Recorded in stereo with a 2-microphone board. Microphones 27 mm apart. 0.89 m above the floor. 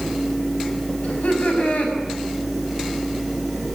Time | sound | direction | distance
1.0 | laughter | 60° left (ahead or behind) | 6 m